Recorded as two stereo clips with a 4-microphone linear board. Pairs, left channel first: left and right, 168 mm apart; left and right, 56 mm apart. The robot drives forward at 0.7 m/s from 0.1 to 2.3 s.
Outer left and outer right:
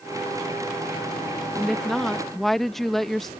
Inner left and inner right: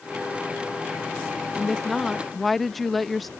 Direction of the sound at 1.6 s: Centre (ahead or behind).